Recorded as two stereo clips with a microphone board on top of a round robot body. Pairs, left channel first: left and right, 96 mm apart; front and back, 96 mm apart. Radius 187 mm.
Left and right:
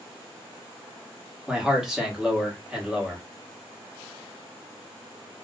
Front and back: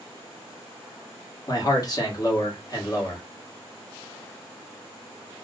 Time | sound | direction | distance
1.5 | a man speaking | 10° right | 1.5 m